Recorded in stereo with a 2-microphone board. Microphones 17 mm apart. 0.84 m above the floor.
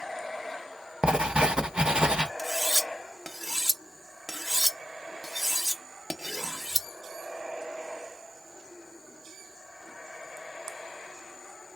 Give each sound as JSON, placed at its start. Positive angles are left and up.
{"t": 1.0, "sound": "writing", "side_deg": -60, "distance_m": 0.6}
{"t": 2.4, "sound": "cutlery clinking", "side_deg": 5, "distance_m": 0.6}